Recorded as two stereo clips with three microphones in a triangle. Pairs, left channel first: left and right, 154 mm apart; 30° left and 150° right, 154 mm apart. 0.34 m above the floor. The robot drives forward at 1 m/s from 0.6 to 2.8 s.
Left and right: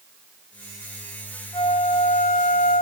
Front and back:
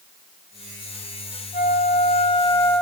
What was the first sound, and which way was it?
A flute, 35° left.